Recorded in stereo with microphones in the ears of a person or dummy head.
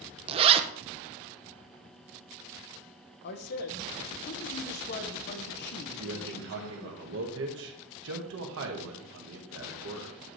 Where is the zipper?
35° right (ahead or behind), 0.6 m.